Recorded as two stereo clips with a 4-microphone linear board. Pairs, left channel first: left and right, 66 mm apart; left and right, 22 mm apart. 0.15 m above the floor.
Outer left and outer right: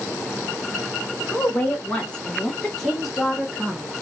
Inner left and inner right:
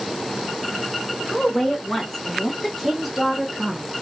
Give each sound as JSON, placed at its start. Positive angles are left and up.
{"t": 1.3, "sound": "a woman speaking", "side_deg": 30, "distance_m": 1.3}